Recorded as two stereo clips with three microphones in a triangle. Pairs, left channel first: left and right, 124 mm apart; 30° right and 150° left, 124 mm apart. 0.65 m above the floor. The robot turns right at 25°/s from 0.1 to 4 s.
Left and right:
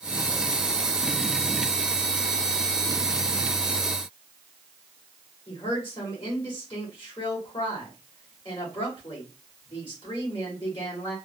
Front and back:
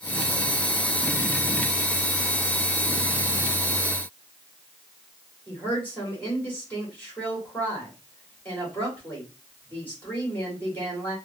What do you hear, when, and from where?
5.5 s a woman speaking: 45° left, 2 m